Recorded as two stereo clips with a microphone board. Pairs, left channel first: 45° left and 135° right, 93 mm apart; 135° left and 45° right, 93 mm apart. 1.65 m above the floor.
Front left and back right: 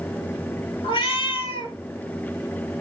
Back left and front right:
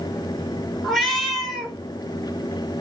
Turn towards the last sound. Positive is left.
turn(degrees=40)